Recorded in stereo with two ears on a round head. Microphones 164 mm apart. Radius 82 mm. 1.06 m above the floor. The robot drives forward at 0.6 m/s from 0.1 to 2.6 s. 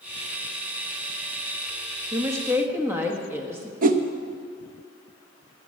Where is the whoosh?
50° right (ahead or behind), 0.8 m.